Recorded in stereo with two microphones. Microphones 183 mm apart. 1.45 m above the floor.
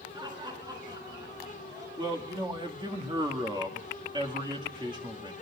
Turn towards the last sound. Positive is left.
turn(degrees=-25)  # may be behind; listen again after turning